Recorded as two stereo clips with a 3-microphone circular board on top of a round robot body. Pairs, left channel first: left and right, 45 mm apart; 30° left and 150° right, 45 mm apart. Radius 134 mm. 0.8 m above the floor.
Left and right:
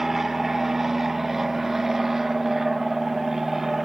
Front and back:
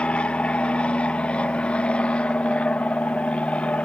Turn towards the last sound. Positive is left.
turn(degrees=-10)